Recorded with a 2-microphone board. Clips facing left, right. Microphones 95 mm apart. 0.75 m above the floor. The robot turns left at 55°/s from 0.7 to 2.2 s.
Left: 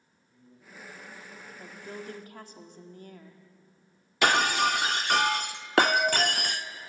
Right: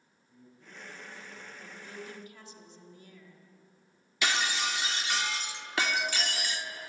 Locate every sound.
0.3 s a man speaking: 35° right, 9.5 m; by 1.5 s 80° right, 9.5 m
1.6 s a woman speaking: 140° left, 2.0 m; by 3.4 s 110° left, 2.0 m
4.2 s breaking glass: 55° left (ahead or behind), 0.6 m